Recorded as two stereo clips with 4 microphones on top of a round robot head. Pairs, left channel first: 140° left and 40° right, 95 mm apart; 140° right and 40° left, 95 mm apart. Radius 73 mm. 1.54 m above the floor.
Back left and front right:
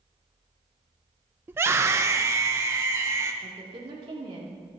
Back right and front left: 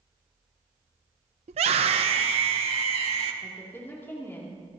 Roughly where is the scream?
Ahead left.